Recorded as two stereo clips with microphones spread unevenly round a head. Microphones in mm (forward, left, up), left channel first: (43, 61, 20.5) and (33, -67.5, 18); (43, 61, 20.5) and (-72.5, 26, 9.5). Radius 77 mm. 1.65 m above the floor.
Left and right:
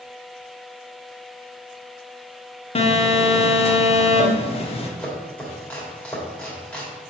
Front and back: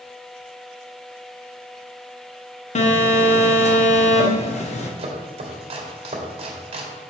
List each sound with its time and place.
2.8 s a phone buzzing: 45° left, 1.4 m
5.0 s chopping: 165° left, 2 m